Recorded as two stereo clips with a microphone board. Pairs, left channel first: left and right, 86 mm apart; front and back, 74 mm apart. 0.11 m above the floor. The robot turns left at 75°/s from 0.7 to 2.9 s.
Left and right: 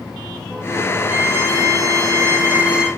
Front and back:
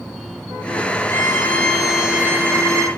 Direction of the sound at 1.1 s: 35° right.